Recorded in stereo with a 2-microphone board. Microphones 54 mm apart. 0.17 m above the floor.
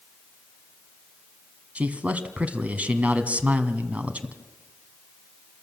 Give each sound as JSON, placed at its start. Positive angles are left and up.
{"t": 1.8, "sound": "a man speaking", "side_deg": -25, "distance_m": 1.4}